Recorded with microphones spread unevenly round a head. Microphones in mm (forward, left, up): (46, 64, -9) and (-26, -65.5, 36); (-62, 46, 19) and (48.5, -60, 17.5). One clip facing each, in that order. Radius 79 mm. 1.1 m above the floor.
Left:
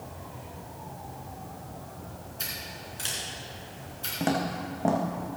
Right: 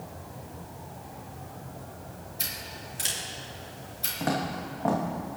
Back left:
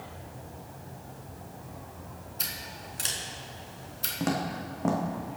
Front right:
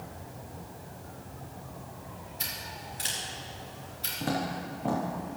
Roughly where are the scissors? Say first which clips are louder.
Even, front right 1 dB; behind.